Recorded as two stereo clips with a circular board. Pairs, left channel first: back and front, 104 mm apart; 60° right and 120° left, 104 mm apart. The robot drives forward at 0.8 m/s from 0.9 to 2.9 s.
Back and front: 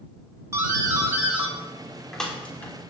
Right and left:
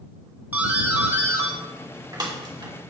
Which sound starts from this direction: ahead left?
A doorbell, at 0.5 s.